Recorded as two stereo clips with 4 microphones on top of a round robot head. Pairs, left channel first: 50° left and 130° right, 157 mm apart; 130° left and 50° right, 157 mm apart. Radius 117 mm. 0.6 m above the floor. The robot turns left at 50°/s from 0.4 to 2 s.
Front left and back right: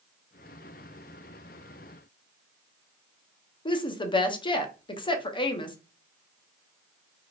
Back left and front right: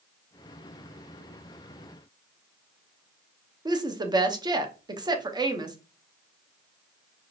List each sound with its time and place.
3.6 s a woman speaking: 5° left, 0.8 m